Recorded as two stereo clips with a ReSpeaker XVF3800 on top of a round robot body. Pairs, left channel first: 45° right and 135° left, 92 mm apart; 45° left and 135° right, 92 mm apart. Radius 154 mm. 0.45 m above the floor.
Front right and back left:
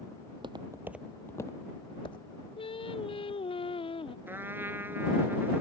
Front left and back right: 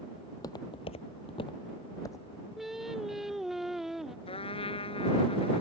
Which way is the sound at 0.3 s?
105° left.